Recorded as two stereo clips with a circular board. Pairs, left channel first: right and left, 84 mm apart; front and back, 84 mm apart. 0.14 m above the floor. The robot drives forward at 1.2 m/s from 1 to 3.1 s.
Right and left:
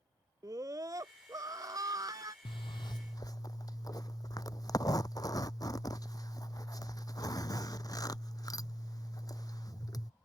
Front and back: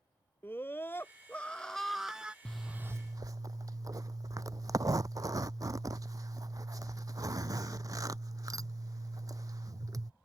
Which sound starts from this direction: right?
A zipper, at 2.5 s.